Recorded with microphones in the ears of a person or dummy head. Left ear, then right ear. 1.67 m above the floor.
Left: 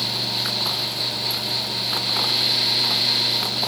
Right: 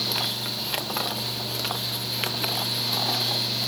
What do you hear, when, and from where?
Only background noise.